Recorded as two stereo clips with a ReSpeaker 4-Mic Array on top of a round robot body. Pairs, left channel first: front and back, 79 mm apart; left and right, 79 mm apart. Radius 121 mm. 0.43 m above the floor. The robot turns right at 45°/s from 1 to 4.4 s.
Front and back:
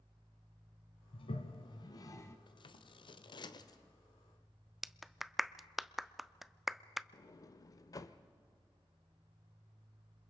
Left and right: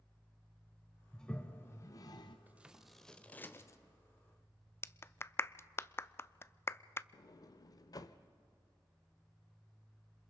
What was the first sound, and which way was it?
A toilet flushing, 5° left.